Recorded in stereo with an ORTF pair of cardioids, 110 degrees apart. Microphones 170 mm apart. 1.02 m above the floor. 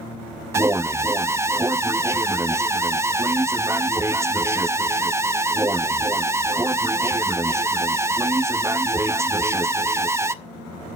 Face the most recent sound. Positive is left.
turn(degrees=-15)